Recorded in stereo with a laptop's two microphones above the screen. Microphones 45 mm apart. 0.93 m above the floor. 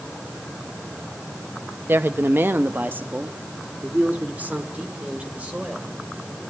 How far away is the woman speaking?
About 0.8 m.